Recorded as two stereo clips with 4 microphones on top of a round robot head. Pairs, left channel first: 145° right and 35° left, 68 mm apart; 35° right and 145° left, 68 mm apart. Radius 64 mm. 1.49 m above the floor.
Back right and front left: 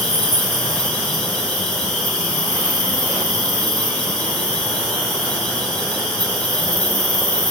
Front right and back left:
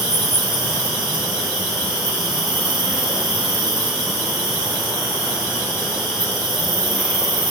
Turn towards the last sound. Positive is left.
turn(degrees=145)